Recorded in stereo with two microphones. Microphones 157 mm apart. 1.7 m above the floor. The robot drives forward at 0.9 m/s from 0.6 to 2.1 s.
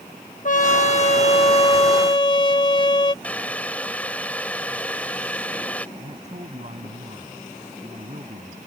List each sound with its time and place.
0.5 s a trumpet: 55° left (ahead or behind); by 3.1 s 30° left (ahead or behind)
3.2 s boiling: 10° left (ahead or behind)
6.0 s a man speaking: 45° right (ahead or behind)